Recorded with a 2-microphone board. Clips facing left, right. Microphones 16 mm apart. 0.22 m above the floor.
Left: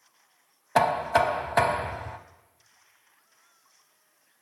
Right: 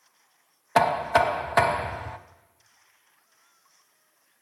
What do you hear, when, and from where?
0.8 s knocking: 5° right (ahead or behind), 0.7 m